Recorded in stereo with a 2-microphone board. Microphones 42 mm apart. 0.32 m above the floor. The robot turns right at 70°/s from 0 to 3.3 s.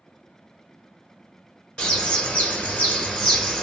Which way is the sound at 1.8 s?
20° left (ahead or behind).